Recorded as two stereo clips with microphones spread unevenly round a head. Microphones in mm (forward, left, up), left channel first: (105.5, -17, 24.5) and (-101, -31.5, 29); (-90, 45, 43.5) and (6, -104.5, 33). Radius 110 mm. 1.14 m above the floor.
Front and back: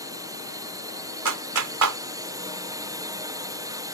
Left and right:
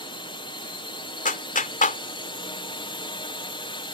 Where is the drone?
135° left.